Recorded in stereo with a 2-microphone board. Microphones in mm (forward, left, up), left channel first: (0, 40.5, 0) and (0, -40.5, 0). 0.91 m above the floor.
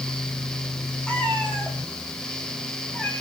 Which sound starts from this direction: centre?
A cat meowing, at 1.1 s.